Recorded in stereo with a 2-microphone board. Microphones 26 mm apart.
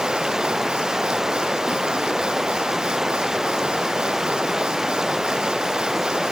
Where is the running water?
20° right (ahead or behind).